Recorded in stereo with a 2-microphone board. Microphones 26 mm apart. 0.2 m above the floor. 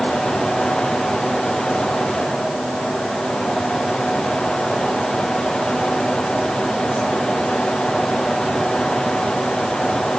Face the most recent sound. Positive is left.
No sound to turn to.